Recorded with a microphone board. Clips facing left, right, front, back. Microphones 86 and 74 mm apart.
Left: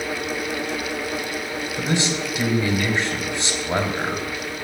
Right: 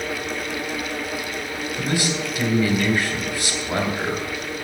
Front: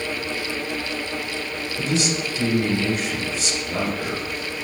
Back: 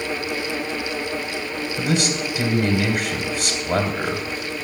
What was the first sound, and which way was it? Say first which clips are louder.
A man speaking: left 1 dB, back 1 dB; 155° left.